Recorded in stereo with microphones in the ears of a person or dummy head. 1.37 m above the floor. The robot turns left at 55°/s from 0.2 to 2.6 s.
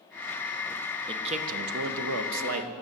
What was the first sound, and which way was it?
A man speaking, 25° right.